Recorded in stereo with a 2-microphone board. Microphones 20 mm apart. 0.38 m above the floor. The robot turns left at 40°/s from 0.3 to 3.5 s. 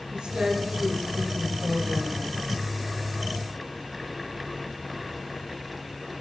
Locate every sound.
0.1 s a woman speaking: 95° right, 2.5 m; by 2.3 s 175° right, 2.5 m